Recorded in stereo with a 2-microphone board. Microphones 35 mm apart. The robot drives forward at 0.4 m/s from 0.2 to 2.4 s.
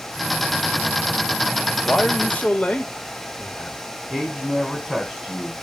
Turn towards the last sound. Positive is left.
turn(degrees=5)  # may be behind; listen again after turning